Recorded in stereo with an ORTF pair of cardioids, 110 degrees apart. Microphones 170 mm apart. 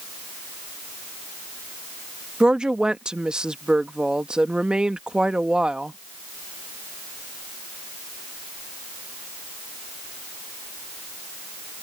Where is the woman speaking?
5° right.